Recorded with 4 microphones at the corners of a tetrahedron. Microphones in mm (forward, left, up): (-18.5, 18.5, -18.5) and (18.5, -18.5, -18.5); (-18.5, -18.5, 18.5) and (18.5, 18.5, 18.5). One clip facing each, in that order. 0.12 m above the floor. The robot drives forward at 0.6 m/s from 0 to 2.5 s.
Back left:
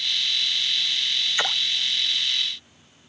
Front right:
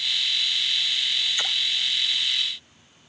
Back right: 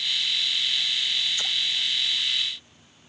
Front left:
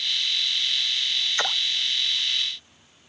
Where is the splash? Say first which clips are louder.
Back left 3 dB, front left 4 dB; 80° left.